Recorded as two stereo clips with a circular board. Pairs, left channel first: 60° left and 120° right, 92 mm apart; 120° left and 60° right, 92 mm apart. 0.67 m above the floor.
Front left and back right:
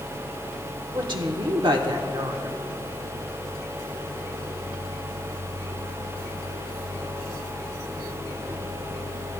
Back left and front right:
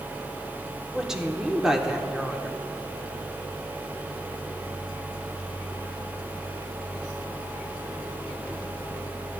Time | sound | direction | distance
0.9 | a woman speaking | 145° right | 1.3 m